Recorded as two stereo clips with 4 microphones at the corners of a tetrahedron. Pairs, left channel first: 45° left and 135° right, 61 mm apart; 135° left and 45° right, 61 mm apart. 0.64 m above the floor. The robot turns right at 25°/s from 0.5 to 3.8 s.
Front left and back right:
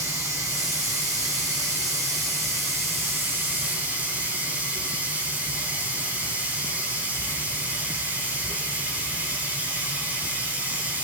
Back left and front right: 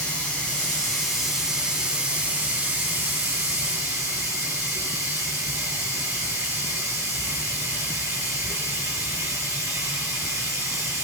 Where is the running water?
155° right, 6.5 m; by 11.0 s 70° right, 6.5 m.